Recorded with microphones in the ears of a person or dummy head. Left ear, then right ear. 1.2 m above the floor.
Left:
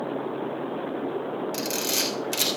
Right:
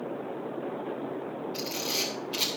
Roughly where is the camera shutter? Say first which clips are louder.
Left 3 dB; left.